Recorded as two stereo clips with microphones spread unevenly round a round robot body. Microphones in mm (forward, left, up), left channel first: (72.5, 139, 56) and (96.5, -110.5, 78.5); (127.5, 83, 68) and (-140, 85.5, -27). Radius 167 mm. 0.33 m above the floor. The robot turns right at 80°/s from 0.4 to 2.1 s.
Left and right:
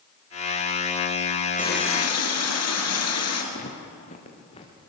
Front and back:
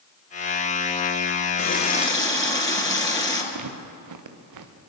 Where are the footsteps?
160° left, 2 m; by 4.7 s 170° left, 3 m.